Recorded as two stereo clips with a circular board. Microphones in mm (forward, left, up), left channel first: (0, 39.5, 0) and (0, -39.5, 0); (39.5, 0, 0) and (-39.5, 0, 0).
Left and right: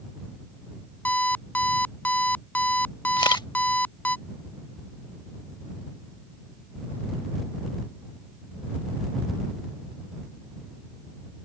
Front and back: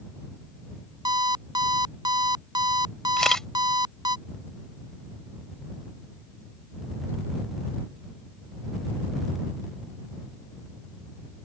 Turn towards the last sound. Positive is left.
turn(degrees=85)